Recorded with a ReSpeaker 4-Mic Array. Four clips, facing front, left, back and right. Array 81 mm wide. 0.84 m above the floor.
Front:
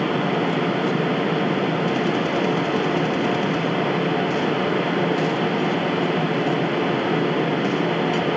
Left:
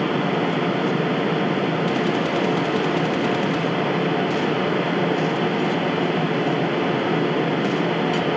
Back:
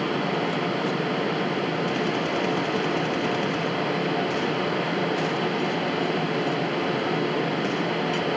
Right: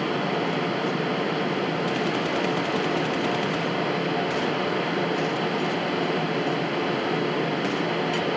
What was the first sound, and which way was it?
Only background noise.